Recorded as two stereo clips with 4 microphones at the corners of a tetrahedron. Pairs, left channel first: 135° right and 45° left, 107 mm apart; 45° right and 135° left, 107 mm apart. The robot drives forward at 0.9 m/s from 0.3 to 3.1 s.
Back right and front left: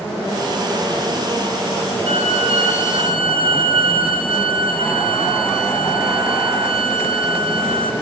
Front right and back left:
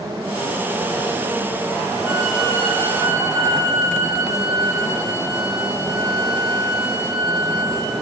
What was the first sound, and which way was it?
A violin, 70° left.